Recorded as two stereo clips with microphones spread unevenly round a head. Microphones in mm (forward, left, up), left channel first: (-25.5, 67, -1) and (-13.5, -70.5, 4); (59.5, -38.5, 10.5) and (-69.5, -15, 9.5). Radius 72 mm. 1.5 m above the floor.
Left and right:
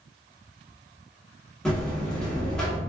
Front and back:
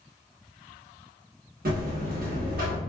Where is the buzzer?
Straight behind, 1.0 m.